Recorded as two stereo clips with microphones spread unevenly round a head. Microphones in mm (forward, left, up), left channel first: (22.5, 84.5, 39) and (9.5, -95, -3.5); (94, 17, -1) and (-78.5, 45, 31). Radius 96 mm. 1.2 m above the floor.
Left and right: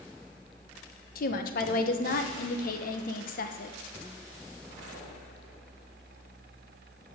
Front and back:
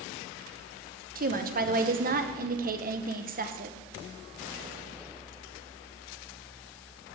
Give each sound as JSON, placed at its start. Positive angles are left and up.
{"t": 1.1, "sound": "a woman speaking", "azimuth_deg": 130, "distance_m": 0.9}